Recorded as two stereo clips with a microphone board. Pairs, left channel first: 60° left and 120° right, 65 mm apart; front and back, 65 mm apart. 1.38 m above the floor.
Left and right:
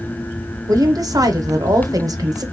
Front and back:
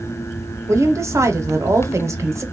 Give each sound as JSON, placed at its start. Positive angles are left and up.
{"t": 0.7, "sound": "a woman speaking", "azimuth_deg": -140, "distance_m": 0.7}